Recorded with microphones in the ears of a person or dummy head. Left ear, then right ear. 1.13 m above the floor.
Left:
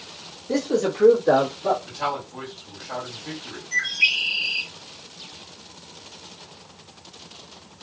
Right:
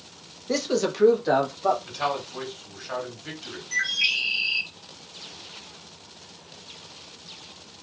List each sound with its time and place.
0.5 s a man speaking: 35° right (ahead or behind), 0.7 m; by 1.8 s 50° right (ahead or behind), 1.4 m
1.9 s a man speaking: 35° right (ahead or behind), 1.9 m
3.7 s a bird: 15° right (ahead or behind), 0.8 m